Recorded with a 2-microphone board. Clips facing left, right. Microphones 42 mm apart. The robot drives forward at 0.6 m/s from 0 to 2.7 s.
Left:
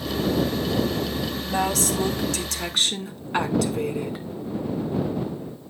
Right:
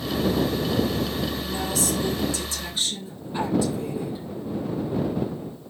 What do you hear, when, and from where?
1.4 s a woman speaking: 65° left (ahead or behind), 2.5 m; by 4.2 s 85° left, 2.5 m